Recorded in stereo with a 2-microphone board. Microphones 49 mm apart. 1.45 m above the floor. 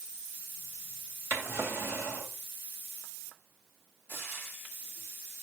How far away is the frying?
About 2.5 m.